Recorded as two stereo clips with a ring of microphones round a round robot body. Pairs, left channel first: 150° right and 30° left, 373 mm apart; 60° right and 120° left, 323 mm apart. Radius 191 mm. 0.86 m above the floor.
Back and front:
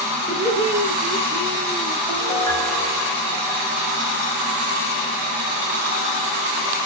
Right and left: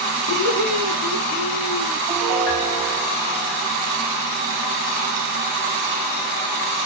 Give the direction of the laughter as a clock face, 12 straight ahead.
2 o'clock.